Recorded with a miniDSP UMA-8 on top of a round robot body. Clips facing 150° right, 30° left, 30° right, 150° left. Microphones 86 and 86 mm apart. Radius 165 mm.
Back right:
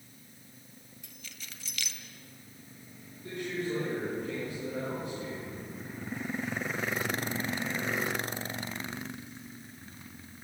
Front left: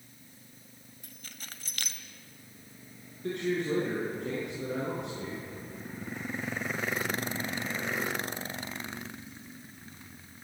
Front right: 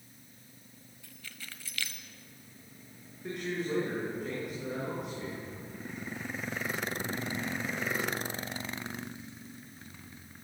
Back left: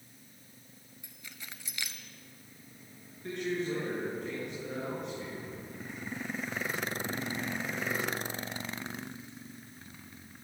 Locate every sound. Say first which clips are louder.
1.0 s keys jangling: front left 3 dB, front right 1 dB; 80° left, 1.8 m
3.2 s a man speaking: front left 4 dB, back left 1 dB; 55° left, 8.5 m